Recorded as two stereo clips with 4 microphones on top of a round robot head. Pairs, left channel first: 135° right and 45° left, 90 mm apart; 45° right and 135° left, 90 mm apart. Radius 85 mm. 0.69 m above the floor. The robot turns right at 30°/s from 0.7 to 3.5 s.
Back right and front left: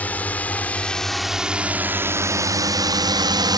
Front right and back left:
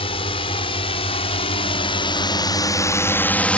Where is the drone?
65° right; by 3.6 s 30° left.